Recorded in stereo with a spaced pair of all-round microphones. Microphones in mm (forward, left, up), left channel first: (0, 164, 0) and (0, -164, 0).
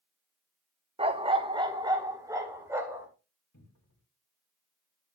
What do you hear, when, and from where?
1.0 s a dog barking: 20° right (ahead or behind), 0.8 m; by 3.1 s 10° right (ahead or behind), 2.5 m
3.5 s a cupboard door: 65° left (ahead or behind), 2.5 m